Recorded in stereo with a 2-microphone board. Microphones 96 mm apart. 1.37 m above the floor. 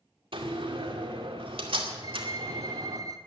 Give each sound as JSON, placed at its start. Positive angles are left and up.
{"t": 0.3, "sound": "a door slam", "side_deg": -75, "distance_m": 2.0}
{"t": 2.0, "sound": "a violin", "side_deg": -45, "distance_m": 1.0}